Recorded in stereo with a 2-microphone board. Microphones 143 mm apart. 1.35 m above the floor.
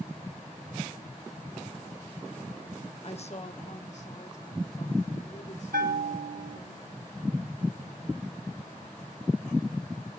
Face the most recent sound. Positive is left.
turn(degrees=-80)